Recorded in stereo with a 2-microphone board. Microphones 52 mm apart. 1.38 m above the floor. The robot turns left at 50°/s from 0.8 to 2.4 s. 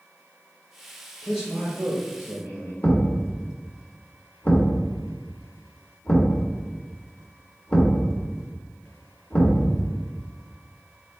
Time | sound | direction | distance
1.2 | a man speaking | 5° left | 1.0 m
2.8 | a thud | 30° left (ahead or behind) | 1.1 m